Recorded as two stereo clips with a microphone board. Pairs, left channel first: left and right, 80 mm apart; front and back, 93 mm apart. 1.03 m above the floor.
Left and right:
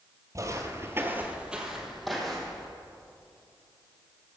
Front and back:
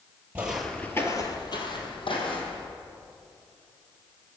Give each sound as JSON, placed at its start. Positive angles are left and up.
{"t": 0.3, "sound": "footsteps", "azimuth_deg": -110, "distance_m": 1.4}